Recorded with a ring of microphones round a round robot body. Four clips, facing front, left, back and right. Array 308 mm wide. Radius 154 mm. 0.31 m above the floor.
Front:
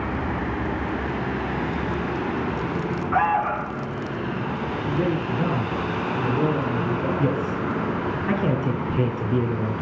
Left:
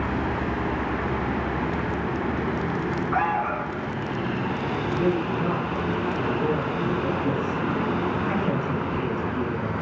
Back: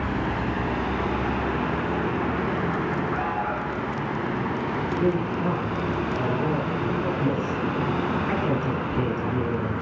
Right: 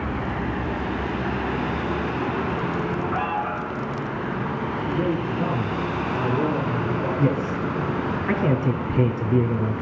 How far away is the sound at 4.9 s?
About 7.5 m.